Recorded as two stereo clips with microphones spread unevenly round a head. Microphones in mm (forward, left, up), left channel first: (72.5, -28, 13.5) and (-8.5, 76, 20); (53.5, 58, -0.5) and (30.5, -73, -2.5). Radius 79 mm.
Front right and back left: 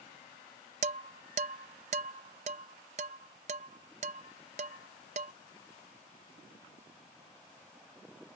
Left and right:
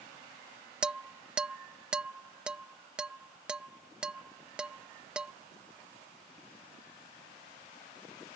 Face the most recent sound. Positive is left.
turn(degrees=175)